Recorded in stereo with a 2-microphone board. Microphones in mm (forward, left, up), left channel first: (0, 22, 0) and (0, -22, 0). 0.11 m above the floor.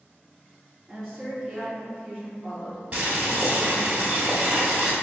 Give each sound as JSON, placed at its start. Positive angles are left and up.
{"t": 0.9, "sound": "a woman speaking", "side_deg": 5, "distance_m": 1.6}
{"t": 2.9, "sound": "boiling", "side_deg": -30, "distance_m": 1.2}